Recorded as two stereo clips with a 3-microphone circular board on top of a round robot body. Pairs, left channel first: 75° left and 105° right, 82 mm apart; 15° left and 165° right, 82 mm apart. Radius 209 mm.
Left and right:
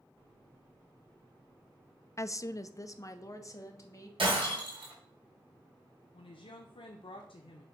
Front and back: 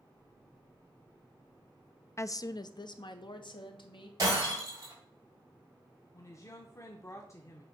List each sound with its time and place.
2.2 s a woman speaking: 45° left, 0.6 m; by 4.1 s 25° left, 1.6 m
4.2 s breaking glass: 115° right, 4 m
6.1 s a woman speaking: 70° left, 0.8 m